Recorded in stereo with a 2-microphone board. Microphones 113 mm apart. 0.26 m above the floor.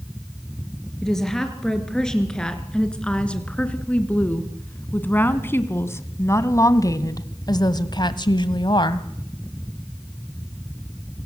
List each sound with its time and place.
1.0 s a woman speaking: 5° left (ahead or behind), 4 m; by 9.1 s 45° left (ahead or behind), 1.5 m